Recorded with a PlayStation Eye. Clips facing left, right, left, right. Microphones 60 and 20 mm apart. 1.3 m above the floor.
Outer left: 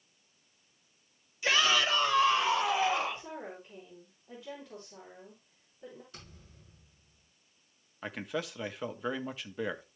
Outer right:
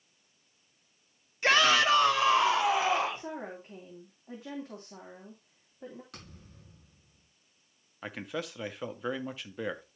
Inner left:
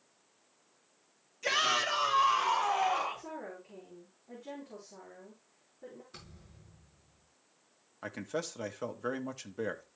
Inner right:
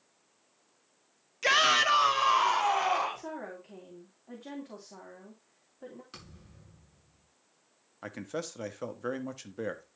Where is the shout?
50° right (ahead or behind), 1.6 m; by 3.3 s 85° right, 3.5 m.